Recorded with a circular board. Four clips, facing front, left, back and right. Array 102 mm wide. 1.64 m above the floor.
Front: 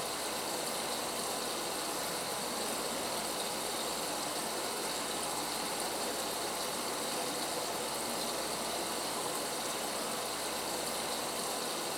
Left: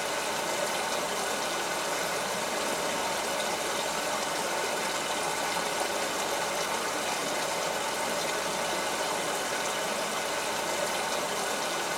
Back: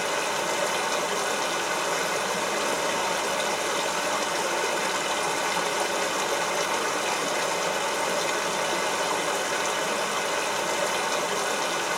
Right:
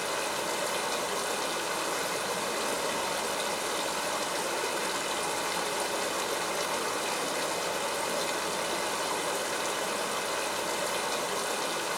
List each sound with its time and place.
0.0 s running water: straight behind, 3.5 m